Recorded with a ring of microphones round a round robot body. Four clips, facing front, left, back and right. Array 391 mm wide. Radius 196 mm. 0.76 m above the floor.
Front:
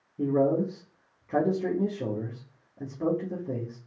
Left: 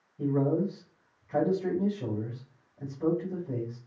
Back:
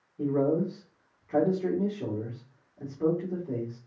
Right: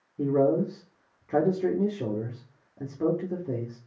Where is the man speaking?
65° right, 1.9 m.